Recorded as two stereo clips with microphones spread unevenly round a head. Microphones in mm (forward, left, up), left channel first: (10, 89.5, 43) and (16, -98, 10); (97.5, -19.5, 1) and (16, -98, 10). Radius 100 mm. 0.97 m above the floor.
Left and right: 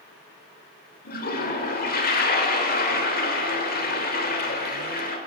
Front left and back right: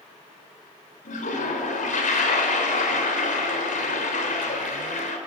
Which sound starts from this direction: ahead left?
A toilet flushing, at 1.1 s.